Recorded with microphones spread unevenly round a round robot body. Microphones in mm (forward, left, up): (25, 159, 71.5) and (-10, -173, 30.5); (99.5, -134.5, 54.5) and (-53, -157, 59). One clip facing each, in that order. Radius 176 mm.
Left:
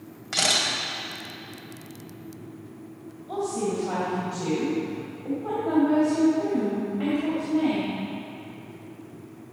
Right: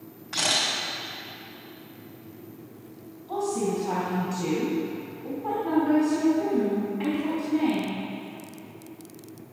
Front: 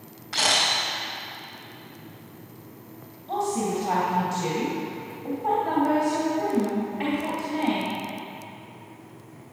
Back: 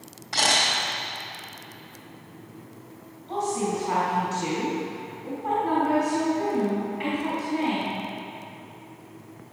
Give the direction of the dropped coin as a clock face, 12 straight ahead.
No dropped coin in this recording.